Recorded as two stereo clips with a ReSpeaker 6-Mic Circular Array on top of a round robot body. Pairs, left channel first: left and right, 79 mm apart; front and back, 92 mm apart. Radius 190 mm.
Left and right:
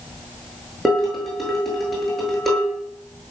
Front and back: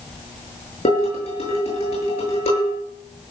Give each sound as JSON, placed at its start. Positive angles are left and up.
{"t": 0.8, "sound": "dishes clattering", "azimuth_deg": 0, "distance_m": 8.0}